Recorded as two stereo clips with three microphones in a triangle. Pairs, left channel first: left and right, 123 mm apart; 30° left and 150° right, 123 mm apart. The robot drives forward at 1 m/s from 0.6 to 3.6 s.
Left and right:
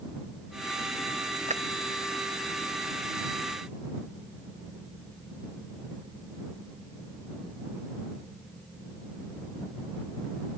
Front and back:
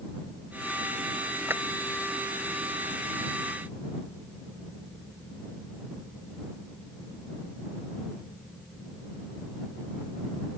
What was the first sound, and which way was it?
A clap, 75° right.